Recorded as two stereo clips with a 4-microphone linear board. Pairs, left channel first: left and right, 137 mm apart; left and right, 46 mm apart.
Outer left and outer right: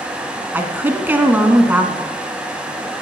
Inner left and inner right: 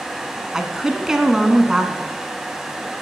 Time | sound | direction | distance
0.5 | a woman speaking | 15° right (ahead or behind) | 1.3 m